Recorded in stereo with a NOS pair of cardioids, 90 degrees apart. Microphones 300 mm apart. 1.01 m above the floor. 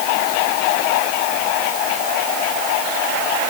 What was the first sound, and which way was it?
Only background noise.